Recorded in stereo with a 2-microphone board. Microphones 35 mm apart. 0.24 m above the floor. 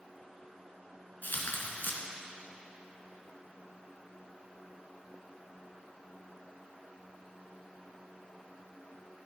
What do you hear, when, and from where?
1.2 s tearing paper: 70° left (ahead or behind), 1.2 m